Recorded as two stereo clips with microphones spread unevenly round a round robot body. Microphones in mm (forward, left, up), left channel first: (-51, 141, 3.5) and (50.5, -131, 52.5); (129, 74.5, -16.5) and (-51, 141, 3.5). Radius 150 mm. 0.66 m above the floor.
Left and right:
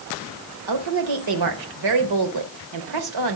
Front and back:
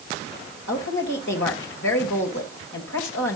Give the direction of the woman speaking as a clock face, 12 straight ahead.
2 o'clock.